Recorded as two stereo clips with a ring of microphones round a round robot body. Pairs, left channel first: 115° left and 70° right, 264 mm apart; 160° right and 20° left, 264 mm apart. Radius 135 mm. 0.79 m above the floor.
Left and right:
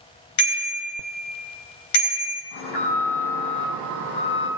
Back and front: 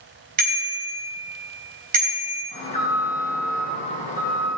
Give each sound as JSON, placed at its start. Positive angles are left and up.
{"t": 0.4, "sound": "a bicycle bell", "azimuth_deg": 85, "distance_m": 3.0}
{"t": 2.5, "sound": "an alarm", "azimuth_deg": 135, "distance_m": 5.5}